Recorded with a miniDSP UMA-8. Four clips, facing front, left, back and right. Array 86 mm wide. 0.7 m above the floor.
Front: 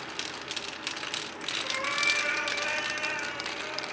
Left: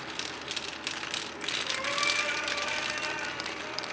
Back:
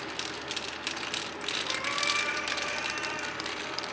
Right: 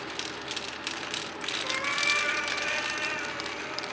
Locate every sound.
1.6 s a cat meowing: 60° right, 6 m; by 3.9 s 40° right, 7 m